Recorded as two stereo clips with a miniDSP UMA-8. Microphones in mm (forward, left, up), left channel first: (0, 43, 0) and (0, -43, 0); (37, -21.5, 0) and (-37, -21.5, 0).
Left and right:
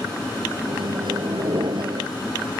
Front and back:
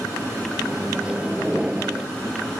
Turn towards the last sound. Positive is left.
turn(degrees=-105)